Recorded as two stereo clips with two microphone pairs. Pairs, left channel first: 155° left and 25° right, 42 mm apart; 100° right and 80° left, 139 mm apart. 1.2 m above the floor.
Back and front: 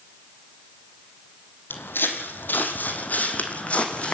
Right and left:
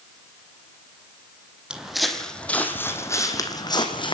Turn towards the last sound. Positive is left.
turn(degrees=-150)